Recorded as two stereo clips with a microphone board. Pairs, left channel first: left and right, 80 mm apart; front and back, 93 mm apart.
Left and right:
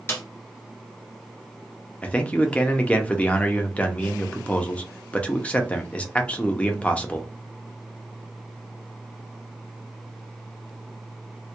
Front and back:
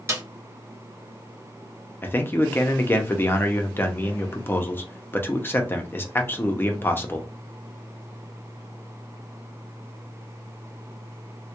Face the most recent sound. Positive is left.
turn(degrees=35)